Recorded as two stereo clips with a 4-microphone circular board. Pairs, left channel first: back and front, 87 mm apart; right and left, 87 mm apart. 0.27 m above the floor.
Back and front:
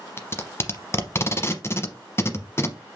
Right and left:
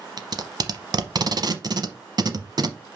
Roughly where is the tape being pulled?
Behind left.